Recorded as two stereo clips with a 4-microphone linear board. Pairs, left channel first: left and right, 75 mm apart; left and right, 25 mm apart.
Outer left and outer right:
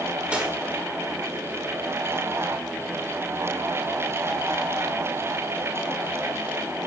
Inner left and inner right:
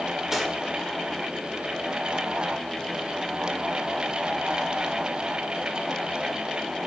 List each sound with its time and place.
0.3 s cutlery clinking: 15° right (ahead or behind), 1.8 m